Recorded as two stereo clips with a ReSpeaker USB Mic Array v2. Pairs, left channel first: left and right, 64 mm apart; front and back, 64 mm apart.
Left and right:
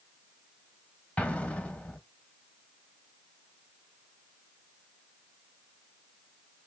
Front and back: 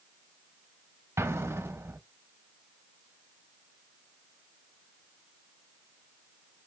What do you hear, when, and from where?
1.2 s an explosion: 155° left, 0.7 m